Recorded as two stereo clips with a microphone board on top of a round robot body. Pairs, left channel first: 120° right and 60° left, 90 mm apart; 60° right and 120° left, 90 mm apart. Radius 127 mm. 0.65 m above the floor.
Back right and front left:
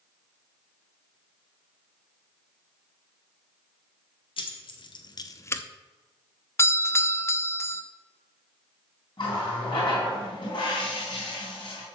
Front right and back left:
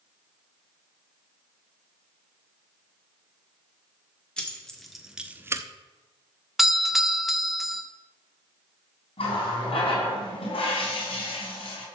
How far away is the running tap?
About 4 m.